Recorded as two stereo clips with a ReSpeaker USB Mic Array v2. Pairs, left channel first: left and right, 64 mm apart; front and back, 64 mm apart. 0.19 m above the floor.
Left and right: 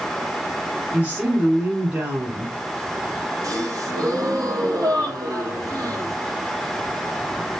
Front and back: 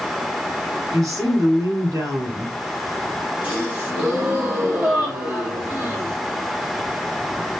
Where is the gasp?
115° right, 4 m.